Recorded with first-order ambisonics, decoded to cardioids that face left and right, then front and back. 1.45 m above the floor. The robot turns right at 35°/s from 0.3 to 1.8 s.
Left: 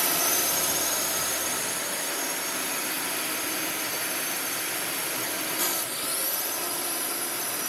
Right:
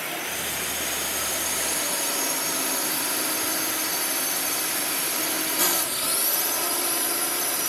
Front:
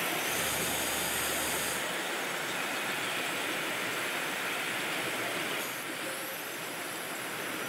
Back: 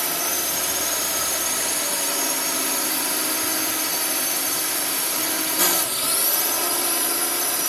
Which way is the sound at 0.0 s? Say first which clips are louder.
Left 3 dB, back 6 dB; 145° left.